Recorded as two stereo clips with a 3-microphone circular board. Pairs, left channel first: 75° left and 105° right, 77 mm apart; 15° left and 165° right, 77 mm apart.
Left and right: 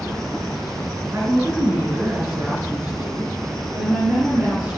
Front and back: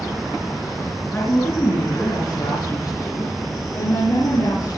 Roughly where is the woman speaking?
Ahead right.